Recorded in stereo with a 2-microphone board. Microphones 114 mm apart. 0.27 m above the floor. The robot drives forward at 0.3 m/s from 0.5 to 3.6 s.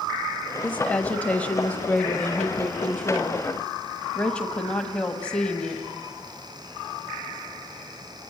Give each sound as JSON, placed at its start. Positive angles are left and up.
{"t": 0.6, "sound": "a woman speaking", "side_deg": 10, "distance_m": 1.4}